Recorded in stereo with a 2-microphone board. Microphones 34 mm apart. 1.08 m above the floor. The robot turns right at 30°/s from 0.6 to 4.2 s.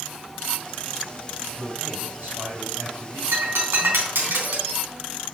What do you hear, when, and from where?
1.6 s a man speaking: 140° right, 5.5 m; by 3.2 s 95° right, 5.5 m
3.3 s breaking glass: 80° right, 4 m; by 4.8 s 70° right (ahead or behind), 4 m